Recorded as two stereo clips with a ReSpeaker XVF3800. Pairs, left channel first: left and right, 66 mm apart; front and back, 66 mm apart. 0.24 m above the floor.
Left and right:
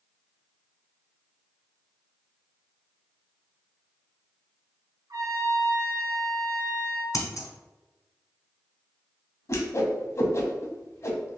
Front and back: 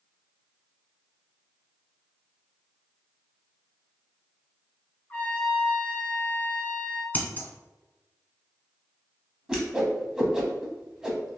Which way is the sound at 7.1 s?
60° left.